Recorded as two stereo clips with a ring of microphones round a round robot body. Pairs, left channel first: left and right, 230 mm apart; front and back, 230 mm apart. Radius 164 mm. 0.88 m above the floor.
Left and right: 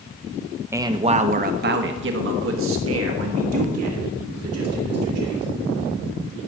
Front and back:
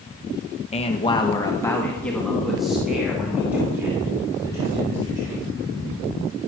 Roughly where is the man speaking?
Ahead right.